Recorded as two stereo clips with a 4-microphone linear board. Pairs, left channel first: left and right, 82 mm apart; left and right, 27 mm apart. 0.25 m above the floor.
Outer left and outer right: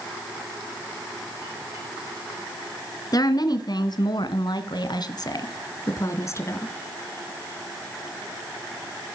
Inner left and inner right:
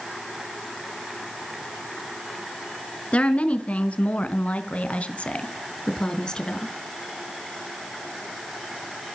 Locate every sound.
3.1 s a woman speaking: 50° left (ahead or behind), 3 m; by 6.7 s 30° left (ahead or behind), 3.5 m